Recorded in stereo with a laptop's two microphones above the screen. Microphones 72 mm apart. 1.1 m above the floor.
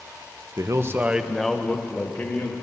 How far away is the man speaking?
About 0.7 m.